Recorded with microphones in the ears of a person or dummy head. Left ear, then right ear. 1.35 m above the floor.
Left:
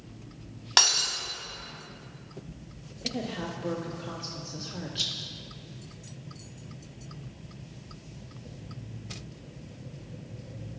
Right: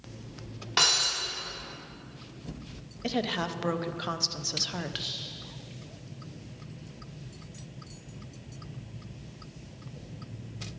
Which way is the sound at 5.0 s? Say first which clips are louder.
Left 9 dB; 45° left (ahead or behind).